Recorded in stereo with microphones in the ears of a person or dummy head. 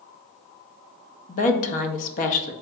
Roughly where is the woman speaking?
Left.